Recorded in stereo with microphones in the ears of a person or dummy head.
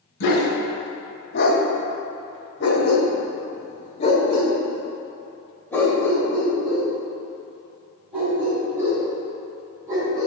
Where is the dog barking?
65° left (ahead or behind), 2.5 m; by 10.3 s 15° right (ahead or behind), 5 m.